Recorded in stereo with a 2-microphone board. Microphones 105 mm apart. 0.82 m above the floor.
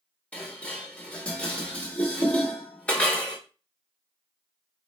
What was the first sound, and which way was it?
Dishes clattering, 10° left (ahead or behind).